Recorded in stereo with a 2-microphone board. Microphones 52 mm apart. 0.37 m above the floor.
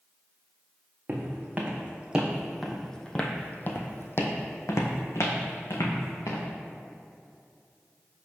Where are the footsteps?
35° right (ahead or behind), 1.4 m; by 6.4 s 80° left, 1.8 m.